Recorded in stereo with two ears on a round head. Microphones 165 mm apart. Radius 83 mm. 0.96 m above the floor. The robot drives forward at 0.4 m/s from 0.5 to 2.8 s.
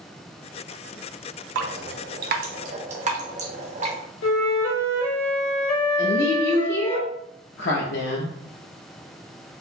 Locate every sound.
1.6 s dripping: 75° right (ahead or behind), 0.5 m; by 4.0 s 40° right (ahead or behind), 0.8 m
4.2 s a flute: 85° left, 1.5 m
6.0 s a woman speaking: 60° left (ahead or behind), 0.7 m